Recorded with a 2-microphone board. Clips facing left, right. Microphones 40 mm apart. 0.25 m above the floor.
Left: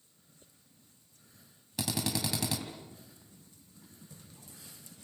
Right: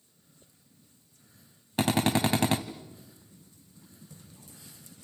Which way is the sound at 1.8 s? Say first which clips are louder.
Right 9 dB; 45° right (ahead or behind).